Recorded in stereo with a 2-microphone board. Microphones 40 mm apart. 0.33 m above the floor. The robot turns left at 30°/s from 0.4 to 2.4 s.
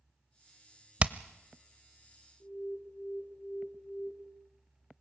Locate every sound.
1.0 s hammering: 30° right (ahead or behind), 0.6 m; by 1.1 s 35° right (ahead or behind), 0.6 m
2.4 s an alarm: 45° left (ahead or behind), 3.5 m